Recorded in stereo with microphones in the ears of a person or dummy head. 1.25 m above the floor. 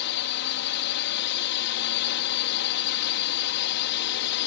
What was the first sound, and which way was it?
A drone, 60° left (ahead or behind).